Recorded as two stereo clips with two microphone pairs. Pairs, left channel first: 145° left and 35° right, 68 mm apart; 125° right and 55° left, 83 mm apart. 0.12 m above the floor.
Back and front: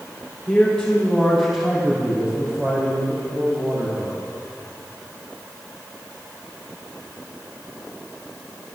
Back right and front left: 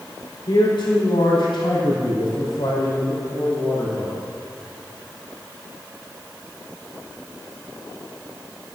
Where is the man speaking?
140° right, 4.5 m; by 4.2 s 75° right, 6 m.